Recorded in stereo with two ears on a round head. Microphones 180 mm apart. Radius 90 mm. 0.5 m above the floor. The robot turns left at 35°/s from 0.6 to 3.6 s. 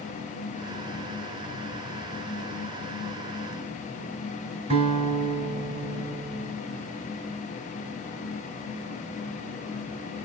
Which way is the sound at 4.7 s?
30° right (ahead or behind).